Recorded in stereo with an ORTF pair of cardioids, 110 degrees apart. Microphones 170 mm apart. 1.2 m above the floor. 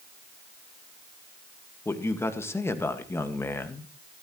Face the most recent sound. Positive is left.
turn(degrees=15)